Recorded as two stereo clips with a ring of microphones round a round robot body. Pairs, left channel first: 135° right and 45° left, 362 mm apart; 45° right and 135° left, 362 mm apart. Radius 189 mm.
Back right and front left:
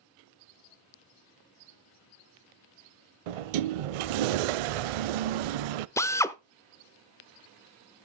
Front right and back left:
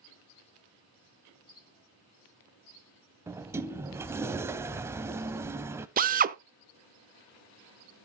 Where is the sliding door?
50° left, 0.5 m.